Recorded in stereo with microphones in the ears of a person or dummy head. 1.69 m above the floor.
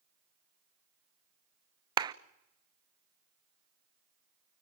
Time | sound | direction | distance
2.0 | a clap | 30° right (ahead or behind) | 0.7 m